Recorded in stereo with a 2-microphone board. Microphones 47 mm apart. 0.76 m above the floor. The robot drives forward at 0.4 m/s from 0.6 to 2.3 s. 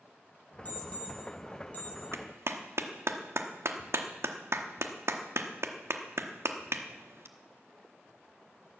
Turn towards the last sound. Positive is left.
turn(degrees=-65)  # may be behind; listen again after turning